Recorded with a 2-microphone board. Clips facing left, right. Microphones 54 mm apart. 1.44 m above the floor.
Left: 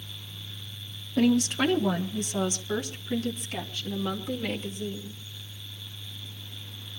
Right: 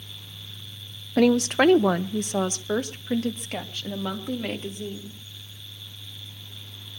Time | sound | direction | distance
1.2 | a woman speaking | 80° right | 0.8 m